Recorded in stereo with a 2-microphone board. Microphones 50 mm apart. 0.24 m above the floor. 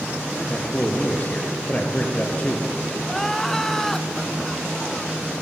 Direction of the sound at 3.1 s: 5° left (ahead or behind).